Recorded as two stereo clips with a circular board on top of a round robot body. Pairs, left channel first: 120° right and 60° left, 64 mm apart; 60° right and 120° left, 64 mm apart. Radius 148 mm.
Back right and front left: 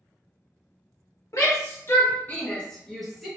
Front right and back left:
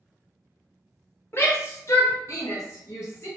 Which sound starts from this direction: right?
A shout, at 1.3 s.